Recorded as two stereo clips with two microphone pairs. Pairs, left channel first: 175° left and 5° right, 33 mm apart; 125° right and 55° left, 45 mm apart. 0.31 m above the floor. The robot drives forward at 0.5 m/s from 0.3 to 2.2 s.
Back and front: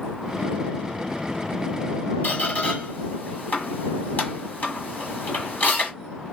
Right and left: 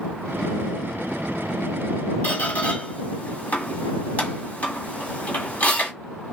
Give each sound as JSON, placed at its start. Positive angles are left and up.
{"t": 2.2, "sound": "a squeak", "azimuth_deg": -175, "distance_m": 1.7}